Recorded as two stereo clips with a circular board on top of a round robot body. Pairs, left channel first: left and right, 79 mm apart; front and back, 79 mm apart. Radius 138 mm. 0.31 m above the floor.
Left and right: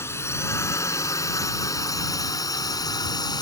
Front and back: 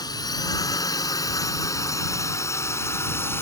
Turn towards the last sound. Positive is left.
turn(degrees=60)